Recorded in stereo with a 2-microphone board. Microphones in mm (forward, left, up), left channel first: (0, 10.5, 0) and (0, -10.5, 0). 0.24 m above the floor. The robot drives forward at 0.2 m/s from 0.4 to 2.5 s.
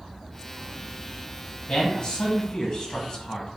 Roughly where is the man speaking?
Left.